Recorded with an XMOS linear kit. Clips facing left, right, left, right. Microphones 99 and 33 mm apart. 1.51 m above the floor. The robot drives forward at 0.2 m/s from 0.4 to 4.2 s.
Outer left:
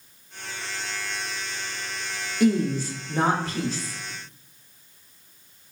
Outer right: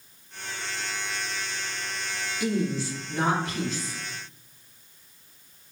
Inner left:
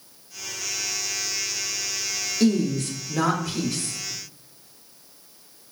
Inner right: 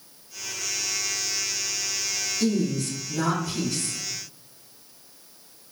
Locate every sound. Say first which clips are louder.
2.4 s a woman speaking: outer left 6 dB, inner left 4 dB; 50° left (ahead or behind), 0.5 m; by 4.0 s 35° left (ahead or behind), 0.8 m